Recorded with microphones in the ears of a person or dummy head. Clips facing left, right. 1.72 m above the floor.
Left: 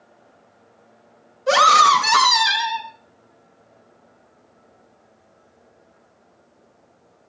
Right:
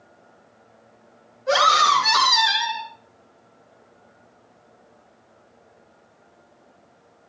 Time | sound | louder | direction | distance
1.5 | a scream | left 3 dB | 65° left (ahead or behind) | 4 m